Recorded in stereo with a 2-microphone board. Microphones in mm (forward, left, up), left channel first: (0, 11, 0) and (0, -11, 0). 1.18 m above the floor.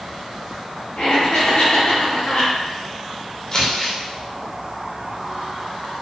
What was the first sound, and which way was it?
Laughter, 60° left (ahead or behind).